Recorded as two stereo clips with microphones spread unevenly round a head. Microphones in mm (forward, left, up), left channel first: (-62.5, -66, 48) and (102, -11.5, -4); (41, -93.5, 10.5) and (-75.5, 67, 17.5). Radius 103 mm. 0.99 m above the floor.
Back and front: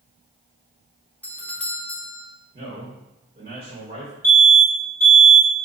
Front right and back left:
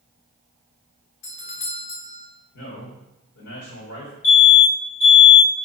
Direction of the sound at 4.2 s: 60° right.